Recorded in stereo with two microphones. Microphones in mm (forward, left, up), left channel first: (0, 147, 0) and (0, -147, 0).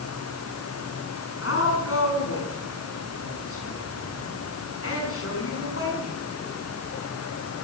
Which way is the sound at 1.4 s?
50° left (ahead or behind).